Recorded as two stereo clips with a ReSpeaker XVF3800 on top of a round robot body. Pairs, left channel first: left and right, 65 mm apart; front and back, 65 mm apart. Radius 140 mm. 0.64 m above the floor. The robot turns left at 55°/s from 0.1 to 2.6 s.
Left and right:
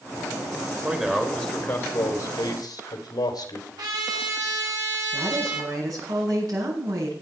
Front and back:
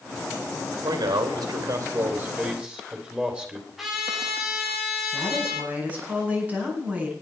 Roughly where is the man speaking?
Behind.